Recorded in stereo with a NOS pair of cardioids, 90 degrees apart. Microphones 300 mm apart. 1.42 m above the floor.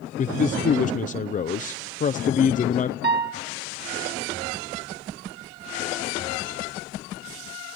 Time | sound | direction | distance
0.2 | a man speaking | 30° left | 0.5 m
3.0 | a piano | 35° right | 1.6 m